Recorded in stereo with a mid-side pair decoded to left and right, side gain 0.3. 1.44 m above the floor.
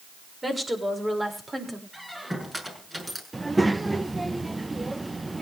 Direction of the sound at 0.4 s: 25° right.